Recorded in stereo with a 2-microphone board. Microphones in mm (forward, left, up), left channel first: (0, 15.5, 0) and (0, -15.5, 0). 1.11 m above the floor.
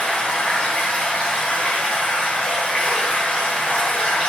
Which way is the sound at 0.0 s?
50° left (ahead or behind).